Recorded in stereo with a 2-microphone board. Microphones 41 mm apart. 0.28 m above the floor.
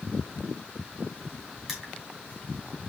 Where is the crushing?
10° right (ahead or behind), 2.5 m.